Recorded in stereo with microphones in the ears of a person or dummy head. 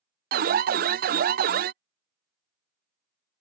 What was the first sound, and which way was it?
An alarm, 50° right (ahead or behind).